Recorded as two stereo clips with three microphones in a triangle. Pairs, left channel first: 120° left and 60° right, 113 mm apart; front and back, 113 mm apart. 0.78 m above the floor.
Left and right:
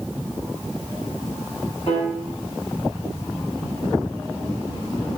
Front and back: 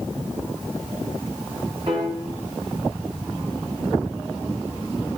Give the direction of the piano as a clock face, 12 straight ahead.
7 o'clock.